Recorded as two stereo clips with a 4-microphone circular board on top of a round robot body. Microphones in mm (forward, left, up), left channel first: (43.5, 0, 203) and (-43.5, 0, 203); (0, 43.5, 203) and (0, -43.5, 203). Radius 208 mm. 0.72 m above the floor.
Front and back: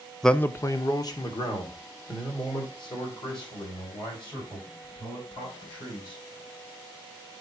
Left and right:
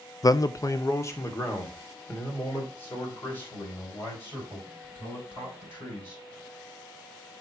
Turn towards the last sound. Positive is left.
turn(degrees=25)